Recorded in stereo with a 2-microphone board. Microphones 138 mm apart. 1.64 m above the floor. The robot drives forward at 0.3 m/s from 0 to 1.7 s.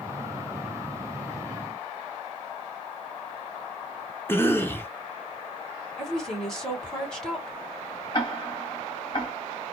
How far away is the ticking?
About 1.8 m.